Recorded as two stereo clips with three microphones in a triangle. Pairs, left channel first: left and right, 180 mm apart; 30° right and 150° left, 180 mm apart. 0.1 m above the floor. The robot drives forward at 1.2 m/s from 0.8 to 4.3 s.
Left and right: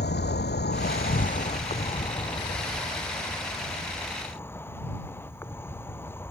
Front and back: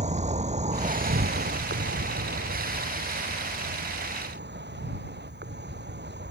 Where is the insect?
105° left; by 6.3 s 165° left.